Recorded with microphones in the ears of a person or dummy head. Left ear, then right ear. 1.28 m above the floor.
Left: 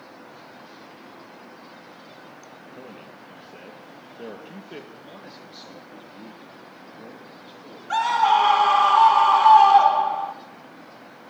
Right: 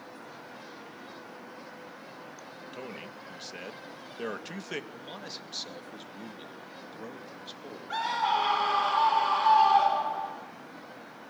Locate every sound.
2.7 s a man speaking: 50° right (ahead or behind), 1.8 m
4.9 s a man speaking: 30° right (ahead or behind), 2.5 m
7.9 s a scream: 40° left (ahead or behind), 1.9 m